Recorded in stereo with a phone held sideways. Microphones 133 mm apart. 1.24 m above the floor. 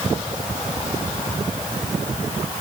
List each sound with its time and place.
Only background noise.